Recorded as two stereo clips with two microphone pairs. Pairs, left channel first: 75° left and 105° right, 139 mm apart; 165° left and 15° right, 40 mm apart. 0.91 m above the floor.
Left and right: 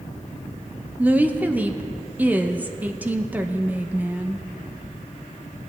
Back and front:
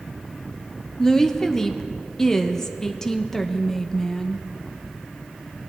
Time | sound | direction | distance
1.0 | a woman speaking | 150° right | 0.6 m